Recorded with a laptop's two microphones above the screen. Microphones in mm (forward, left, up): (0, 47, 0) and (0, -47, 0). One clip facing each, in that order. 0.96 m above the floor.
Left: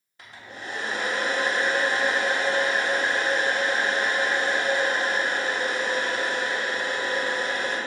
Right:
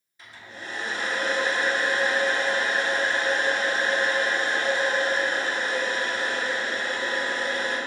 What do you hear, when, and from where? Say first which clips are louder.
0.2 s a hair dryer: left 1 dB; 60° left (ahead or behind), 0.7 m